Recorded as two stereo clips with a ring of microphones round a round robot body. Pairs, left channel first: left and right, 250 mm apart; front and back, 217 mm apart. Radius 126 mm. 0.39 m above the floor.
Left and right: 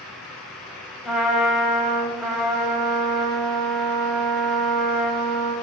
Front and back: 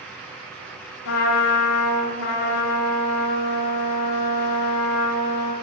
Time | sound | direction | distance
1.1 | a trumpet | straight ahead | 0.6 m